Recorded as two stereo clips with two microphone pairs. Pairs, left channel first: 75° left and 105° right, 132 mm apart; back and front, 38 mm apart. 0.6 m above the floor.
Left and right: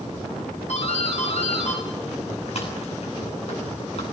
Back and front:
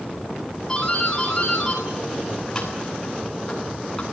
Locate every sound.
0.7 s a doorbell: 115° left, 10 m